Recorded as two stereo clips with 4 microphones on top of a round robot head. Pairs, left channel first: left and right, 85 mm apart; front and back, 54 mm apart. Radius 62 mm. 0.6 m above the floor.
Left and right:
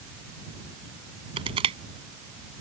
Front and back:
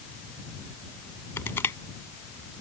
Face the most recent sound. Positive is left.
turn(degrees=-60)